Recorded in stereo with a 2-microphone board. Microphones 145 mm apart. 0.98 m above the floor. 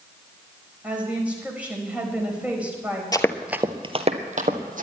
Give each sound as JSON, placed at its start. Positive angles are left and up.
{"t": 0.8, "sound": "a woman speaking", "side_deg": -10, "distance_m": 4.5}
{"t": 3.1, "sound": "running footsteps", "side_deg": 25, "distance_m": 1.0}